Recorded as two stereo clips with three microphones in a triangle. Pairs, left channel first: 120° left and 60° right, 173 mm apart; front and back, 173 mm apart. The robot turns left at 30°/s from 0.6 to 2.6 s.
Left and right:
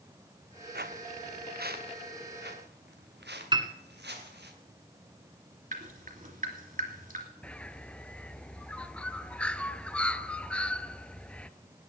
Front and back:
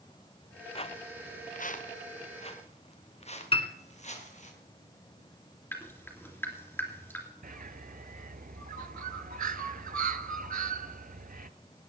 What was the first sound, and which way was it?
Footsteps, 55° right.